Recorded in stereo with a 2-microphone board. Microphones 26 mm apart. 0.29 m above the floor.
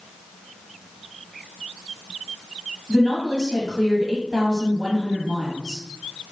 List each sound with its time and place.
2.9 s a woman speaking: 10° right (ahead or behind), 1.6 m